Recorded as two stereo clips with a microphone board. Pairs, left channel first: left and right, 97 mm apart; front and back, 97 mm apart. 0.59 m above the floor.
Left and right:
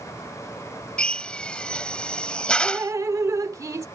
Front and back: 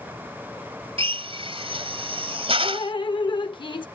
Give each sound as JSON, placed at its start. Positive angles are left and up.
{"t": 1.0, "sound": "a drill", "azimuth_deg": 170}
{"t": 2.6, "sound": "dripping", "azimuth_deg": -35}